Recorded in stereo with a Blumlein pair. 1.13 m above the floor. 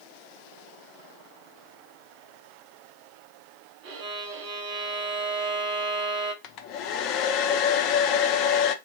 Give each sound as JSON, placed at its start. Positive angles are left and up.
{"t": 3.8, "sound": "a violin", "azimuth_deg": -40, "distance_m": 0.9}
{"t": 6.4, "sound": "a hair dryer", "azimuth_deg": 40, "distance_m": 0.5}